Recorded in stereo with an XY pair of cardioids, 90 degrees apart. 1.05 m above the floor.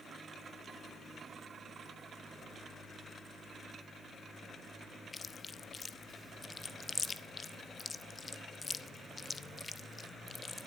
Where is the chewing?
35° left, 0.9 m.